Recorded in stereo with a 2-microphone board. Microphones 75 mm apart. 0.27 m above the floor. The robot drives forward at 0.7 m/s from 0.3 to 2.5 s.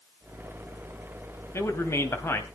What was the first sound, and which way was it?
A man speaking, 35° left (ahead or behind).